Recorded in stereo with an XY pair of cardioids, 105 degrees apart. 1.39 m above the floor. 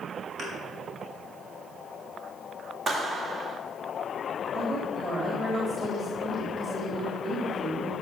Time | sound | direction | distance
0.4 | a thud | 65° right | 5.5 m
2.9 | a clap | 45° right | 1.9 m
4.5 | a woman speaking | 35° right | 3.5 m